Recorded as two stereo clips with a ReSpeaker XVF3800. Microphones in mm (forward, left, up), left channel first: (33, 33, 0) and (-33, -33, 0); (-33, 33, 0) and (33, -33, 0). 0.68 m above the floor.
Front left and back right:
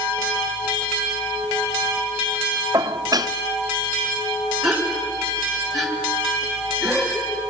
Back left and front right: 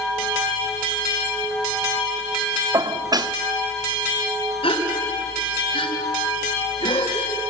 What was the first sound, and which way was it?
Dishes clattering, 90° right.